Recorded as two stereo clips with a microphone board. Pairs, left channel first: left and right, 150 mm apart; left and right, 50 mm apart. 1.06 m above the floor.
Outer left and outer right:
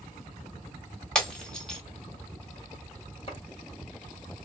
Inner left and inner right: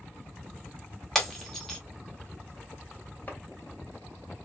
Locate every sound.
1.1 s breaking glass: 5° left (ahead or behind), 1.2 m
3.3 s chopping: 40° left (ahead or behind), 1.4 m